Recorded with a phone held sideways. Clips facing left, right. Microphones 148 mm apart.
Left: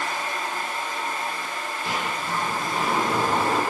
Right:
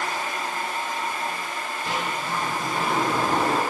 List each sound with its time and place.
0.0 s a fan: 15° right (ahead or behind), 1.0 m
1.9 s a sliding door: 10° left (ahead or behind), 1.3 m